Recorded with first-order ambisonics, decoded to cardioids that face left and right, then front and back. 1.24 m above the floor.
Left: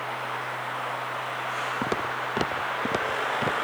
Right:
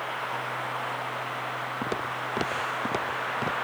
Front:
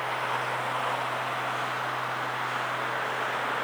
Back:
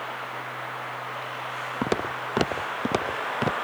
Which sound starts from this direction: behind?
Footsteps, at 1.8 s.